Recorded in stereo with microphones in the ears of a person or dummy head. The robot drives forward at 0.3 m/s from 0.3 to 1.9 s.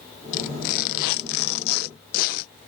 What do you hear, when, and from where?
0.3 s tearing paper: 40° left (ahead or behind)